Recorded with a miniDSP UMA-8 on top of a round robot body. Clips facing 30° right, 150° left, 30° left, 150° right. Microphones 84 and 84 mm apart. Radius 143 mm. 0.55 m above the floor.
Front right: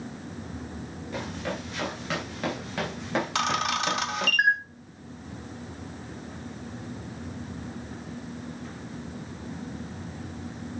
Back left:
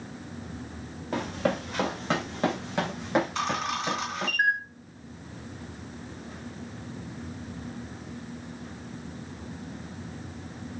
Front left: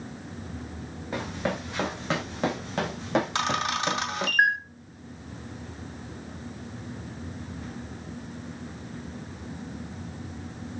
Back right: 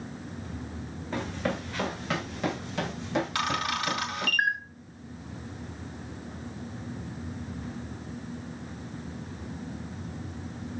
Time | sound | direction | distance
1.1 | running footsteps | 110° left | 3.5 m
3.4 | a camera shutter | 35° right | 2 m